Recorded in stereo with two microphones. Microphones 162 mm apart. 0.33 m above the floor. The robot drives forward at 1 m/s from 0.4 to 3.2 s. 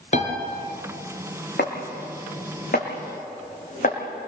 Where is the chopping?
80° left, 4 m; by 4.0 s 60° left (ahead or behind), 4.5 m.